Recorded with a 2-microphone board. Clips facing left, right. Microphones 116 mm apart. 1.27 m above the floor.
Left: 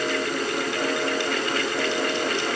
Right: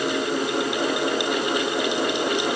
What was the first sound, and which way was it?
Only background noise.